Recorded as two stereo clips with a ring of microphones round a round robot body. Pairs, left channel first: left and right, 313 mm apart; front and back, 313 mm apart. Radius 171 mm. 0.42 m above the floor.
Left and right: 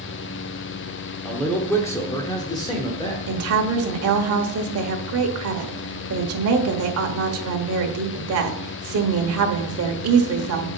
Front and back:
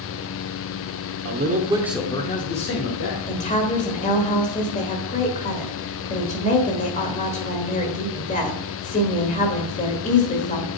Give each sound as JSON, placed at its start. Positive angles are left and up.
{"t": 1.2, "sound": "a man speaking", "azimuth_deg": 175, "distance_m": 1.0}
{"t": 3.3, "sound": "a woman speaking", "azimuth_deg": -65, "distance_m": 1.3}